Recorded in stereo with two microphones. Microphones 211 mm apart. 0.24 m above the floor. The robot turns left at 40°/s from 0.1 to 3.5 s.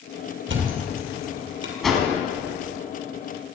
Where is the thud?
65° right (ahead or behind), 2.5 m; by 1.7 s 60° right (ahead or behind), 2.5 m.